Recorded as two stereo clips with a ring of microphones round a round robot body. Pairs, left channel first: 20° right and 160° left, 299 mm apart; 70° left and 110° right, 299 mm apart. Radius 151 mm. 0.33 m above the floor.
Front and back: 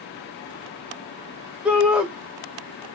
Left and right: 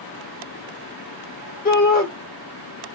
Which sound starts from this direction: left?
A shout, at 1.6 s.